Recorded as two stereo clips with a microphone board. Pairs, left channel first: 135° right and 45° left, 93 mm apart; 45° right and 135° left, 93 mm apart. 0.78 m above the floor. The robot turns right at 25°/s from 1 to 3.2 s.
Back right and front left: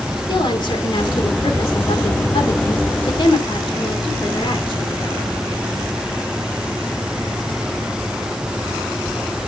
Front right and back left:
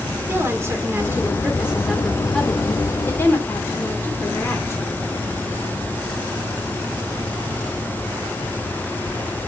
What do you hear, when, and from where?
0.3 s a woman speaking: 160° right, 2.0 m; by 5.0 s 105° right, 2.0 m